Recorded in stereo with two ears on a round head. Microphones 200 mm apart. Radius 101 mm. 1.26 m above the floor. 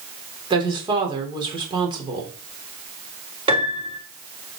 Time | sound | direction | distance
0.5 | a woman speaking | 20° right (ahead or behind) | 3.5 m
3.5 | a piano | 25° right (ahead or behind) | 2 m